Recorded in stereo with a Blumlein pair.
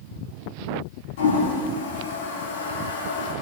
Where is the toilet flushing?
60° left, 2.5 m.